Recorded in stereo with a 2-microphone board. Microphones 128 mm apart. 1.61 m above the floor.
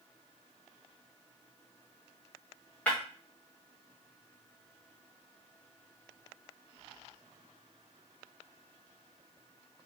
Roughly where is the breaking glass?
Centre.